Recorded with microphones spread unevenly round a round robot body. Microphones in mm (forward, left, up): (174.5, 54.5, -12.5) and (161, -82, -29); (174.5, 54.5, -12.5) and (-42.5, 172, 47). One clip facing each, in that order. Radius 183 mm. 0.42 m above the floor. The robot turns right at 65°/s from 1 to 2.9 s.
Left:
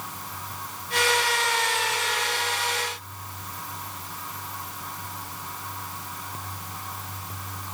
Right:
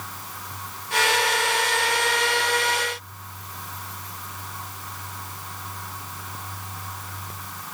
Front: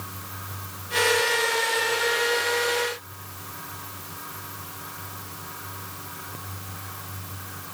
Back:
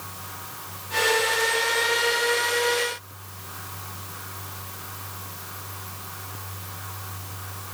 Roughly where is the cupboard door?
I don't hear a cupboard door.